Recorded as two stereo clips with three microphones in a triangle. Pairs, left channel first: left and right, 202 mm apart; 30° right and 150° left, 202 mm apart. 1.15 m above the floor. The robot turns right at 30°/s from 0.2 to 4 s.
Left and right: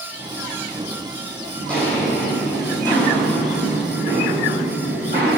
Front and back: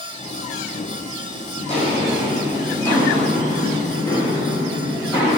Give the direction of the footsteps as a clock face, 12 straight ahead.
12 o'clock.